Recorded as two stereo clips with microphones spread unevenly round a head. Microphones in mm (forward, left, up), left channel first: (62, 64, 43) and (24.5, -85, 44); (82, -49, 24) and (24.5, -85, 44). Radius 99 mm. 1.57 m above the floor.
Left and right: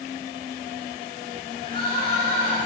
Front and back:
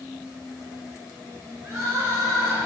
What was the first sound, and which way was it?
Crying, 140° left.